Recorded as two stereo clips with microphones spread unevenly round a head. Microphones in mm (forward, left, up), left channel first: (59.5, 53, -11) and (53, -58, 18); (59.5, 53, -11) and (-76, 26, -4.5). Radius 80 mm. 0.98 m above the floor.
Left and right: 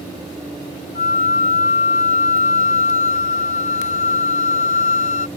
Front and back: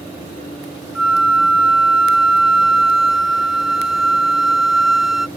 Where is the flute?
105° left.